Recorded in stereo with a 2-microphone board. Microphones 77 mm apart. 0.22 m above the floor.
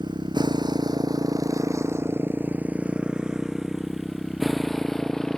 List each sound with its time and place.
0.0 s a motorcycle: 85° right; by 5.4 s 10° left (ahead or behind)